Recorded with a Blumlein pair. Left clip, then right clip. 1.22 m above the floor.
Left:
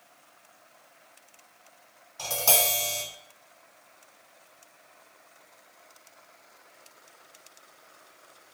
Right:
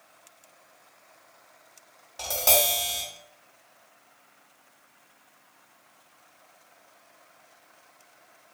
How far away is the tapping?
About 1.7 m.